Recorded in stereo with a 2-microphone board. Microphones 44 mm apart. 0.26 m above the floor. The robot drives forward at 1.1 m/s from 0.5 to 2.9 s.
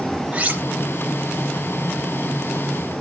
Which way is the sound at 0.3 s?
25° right (ahead or behind).